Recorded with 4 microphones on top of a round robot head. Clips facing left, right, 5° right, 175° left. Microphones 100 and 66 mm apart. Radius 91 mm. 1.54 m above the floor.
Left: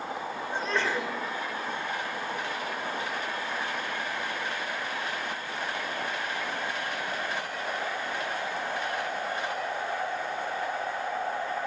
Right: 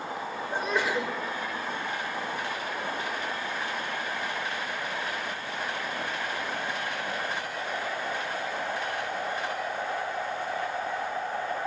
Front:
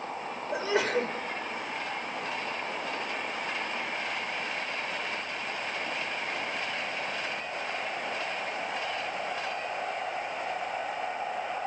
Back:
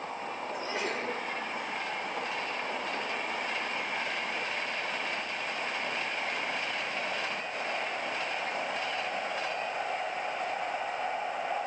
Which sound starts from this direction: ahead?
A sneeze, at 0.5 s.